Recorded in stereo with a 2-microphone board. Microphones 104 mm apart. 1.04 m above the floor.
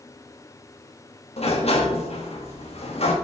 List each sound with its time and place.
1.4 s a sliding door: 70° left (ahead or behind), 1.5 m